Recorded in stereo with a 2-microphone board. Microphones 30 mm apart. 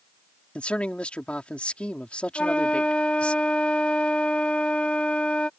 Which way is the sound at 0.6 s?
40° left (ahead or behind).